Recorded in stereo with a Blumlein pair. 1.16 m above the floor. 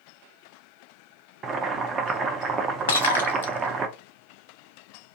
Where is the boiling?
20° right, 0.5 m.